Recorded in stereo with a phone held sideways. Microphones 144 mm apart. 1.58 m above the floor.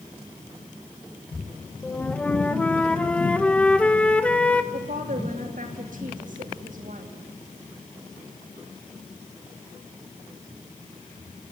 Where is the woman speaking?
65° right (ahead or behind), 3 m.